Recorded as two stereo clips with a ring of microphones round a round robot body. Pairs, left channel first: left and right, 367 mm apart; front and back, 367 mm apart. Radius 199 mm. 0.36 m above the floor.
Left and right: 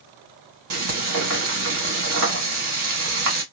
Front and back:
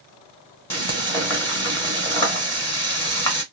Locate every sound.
0.7 s frying: 80° right, 1.9 m